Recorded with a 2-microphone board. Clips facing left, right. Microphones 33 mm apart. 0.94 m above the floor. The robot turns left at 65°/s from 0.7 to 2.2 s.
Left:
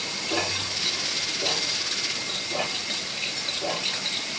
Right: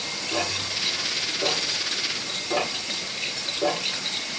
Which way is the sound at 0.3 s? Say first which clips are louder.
Even; 25° left (ahead or behind).